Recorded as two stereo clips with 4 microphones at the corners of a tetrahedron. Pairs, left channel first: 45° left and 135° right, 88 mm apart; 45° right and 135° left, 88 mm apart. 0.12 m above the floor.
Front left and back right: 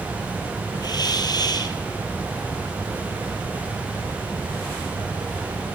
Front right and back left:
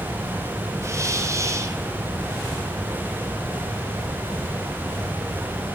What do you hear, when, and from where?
0.8 s a hiss: 80° left, 2.5 m